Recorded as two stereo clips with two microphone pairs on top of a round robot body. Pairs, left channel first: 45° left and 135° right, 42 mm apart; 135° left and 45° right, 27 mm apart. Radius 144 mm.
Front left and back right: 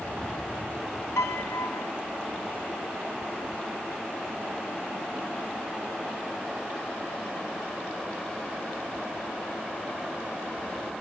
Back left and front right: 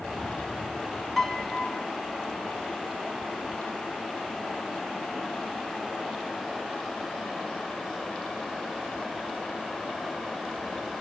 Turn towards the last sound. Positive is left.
turn(degrees=45)